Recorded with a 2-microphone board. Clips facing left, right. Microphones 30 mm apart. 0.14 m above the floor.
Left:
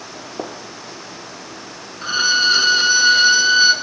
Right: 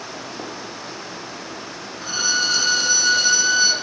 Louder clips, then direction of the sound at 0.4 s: Left 7 dB; 45° left (ahead or behind).